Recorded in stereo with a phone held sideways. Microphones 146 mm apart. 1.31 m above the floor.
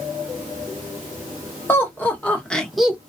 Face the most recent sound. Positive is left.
turn(degrees=-10)  # may be behind; listen again after turning